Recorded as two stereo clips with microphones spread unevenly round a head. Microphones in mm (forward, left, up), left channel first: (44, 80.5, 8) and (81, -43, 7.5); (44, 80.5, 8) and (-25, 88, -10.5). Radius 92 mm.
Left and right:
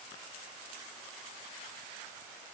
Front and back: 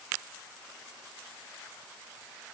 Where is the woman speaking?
No woman speaking in this recording.